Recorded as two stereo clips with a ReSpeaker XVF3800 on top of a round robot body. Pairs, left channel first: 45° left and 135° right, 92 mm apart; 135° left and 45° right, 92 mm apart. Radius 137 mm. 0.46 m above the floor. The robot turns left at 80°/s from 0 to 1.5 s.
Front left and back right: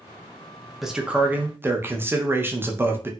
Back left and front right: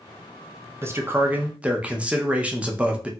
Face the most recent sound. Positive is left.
turn(degrees=-105)